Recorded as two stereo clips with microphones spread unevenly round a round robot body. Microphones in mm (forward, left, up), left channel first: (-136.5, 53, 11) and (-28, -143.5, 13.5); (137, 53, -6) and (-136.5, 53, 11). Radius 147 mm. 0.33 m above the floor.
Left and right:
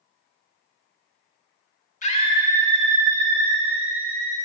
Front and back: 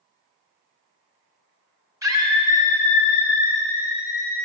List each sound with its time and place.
2.0 s a scream: 105° left, 1.0 m; by 4.4 s 100° right, 1.6 m